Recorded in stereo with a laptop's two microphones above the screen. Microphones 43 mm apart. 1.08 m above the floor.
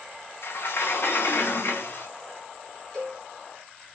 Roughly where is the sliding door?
Left.